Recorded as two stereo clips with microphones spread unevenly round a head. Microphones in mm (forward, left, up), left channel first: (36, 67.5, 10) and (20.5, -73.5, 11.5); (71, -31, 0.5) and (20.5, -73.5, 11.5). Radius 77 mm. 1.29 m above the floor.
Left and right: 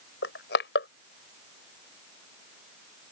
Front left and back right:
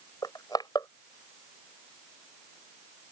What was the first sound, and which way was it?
Crushing, 105° left.